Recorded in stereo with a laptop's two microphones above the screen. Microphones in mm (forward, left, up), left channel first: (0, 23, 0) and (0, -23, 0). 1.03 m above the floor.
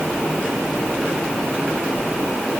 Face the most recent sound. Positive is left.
No sound to turn to.